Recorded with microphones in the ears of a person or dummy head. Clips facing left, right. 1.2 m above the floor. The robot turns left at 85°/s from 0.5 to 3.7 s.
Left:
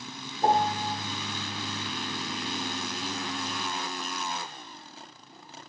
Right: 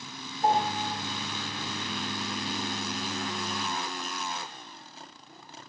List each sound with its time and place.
0.4 s a piano: 90° left, 1.1 m; by 0.9 s 55° left, 1.1 m